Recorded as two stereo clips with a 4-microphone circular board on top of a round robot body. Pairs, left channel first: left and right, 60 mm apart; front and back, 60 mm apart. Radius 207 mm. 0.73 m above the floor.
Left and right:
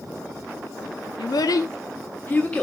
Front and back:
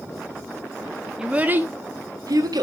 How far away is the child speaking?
About 0.8 m.